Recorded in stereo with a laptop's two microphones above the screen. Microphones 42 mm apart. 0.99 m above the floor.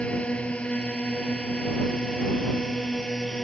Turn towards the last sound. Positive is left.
turn(degrees=20)  # may be behind; listen again after turning